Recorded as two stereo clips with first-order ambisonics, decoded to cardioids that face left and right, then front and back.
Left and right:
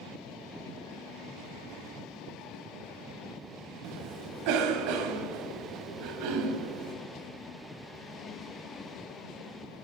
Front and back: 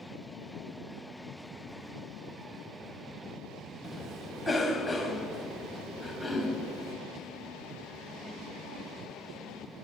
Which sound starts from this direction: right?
A cough, at 3.8 s.